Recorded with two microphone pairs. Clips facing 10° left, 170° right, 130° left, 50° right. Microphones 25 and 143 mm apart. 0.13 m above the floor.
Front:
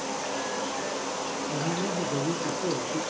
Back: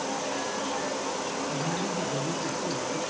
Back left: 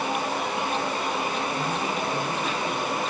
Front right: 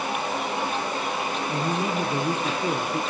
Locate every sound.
1.5 s a man speaking: 35° right, 4 m; by 3.0 s 10° right, 3.5 m